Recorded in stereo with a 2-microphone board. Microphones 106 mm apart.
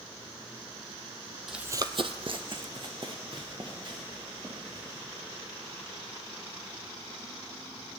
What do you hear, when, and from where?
1.5 s running footsteps: 5° right (ahead or behind), 0.6 m; by 5.0 s 45° right (ahead or behind), 4.5 m